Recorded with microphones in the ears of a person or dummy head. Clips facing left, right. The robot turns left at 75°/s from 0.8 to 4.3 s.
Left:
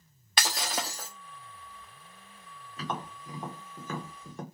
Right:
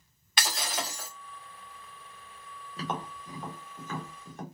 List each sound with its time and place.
0.4 s breaking glass: 30° left (ahead or behind), 0.6 m; by 1.1 s 25° left (ahead or behind), 0.6 m
2.8 s tapping: 30° right (ahead or behind), 1.1 m; by 4.4 s 85° left, 1.1 m